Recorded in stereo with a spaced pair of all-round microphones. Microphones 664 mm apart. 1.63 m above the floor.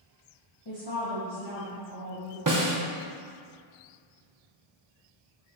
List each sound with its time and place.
0.7 s a woman speaking: 35° left (ahead or behind), 2.0 m; by 2.4 s 55° left (ahead or behind), 4.5 m
2.5 s a snare drum: 30° right (ahead or behind), 0.8 m